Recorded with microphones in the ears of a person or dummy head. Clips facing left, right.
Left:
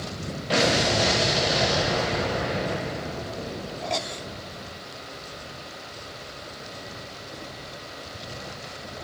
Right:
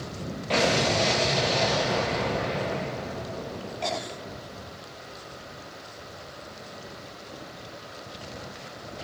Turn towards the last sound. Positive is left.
turn(degrees=10)  # may be behind; listen again after turning